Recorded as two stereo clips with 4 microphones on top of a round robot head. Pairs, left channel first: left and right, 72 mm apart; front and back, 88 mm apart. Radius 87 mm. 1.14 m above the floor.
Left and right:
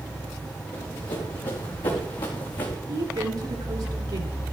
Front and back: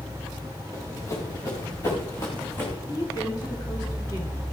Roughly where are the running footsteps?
Ahead left.